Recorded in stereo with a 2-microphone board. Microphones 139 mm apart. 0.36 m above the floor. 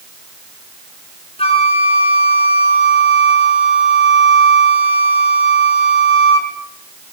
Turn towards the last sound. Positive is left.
turn(degrees=45)  # may be behind; listen again after turning